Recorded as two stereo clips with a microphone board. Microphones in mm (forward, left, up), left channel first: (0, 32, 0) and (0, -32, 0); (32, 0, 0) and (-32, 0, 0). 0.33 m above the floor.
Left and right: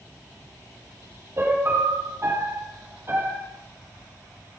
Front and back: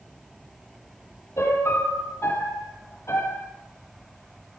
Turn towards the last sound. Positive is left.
turn(degrees=-45)